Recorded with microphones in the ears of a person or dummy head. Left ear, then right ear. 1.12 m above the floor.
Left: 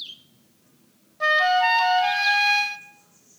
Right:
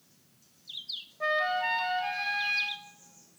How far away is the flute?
About 1.0 m.